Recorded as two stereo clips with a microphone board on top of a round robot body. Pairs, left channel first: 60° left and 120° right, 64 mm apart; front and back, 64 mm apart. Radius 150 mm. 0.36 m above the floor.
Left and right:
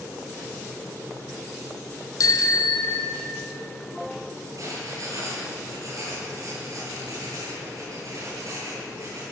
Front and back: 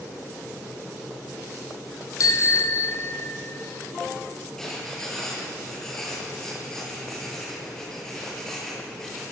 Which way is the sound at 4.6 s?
80° right.